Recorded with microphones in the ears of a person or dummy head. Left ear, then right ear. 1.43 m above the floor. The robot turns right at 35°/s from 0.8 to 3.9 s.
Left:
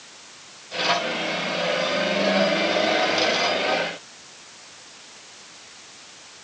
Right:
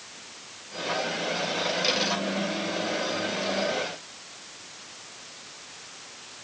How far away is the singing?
I don't hear singing.